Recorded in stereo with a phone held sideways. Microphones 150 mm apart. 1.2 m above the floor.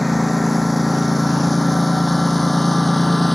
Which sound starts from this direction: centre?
A lawn mower, at 0.0 s.